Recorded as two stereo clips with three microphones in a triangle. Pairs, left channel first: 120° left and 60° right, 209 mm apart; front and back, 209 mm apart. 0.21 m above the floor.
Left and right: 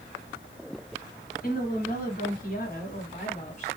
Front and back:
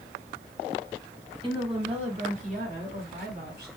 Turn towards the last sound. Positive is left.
turn(degrees=165)